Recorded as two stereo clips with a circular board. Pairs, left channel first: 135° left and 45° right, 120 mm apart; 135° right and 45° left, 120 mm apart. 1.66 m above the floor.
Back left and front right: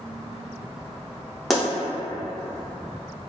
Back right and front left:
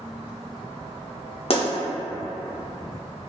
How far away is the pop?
About 0.7 m.